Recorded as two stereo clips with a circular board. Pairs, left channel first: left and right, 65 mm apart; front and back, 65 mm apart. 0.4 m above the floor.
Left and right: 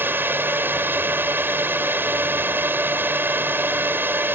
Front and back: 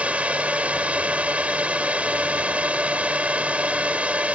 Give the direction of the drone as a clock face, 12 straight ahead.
4 o'clock.